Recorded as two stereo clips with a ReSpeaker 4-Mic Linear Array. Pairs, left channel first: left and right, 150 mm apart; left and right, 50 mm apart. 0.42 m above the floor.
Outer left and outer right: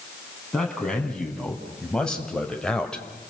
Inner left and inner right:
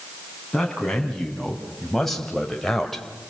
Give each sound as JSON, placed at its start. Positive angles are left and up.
{"t": 0.5, "sound": "a man speaking", "side_deg": 5, "distance_m": 4.0}